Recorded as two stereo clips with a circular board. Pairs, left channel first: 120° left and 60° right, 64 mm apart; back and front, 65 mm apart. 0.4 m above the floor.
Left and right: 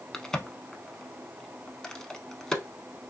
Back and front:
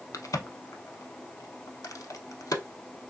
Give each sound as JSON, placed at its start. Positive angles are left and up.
{"t": 0.1, "sound": "a crack", "azimuth_deg": -160, "distance_m": 0.6}